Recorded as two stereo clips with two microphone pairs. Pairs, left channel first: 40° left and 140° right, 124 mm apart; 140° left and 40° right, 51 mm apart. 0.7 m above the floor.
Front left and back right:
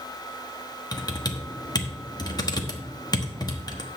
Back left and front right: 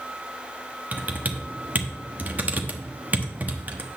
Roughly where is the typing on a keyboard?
Ahead.